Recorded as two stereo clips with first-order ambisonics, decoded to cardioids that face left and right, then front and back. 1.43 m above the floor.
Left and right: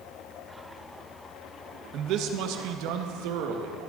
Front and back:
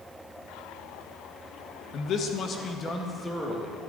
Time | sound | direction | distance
1.9 | a man speaking | 50° right | 1.3 m